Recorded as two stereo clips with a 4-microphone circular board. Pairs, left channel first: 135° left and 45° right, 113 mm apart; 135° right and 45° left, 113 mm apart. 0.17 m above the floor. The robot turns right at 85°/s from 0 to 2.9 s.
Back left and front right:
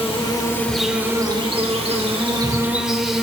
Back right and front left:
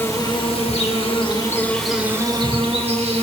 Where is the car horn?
No car horn in this recording.